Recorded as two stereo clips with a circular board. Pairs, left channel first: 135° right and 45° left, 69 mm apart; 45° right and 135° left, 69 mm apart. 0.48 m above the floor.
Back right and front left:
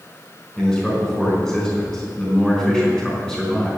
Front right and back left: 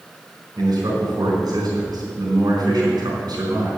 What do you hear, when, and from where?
0.6 s a man speaking: 145° left, 4.5 m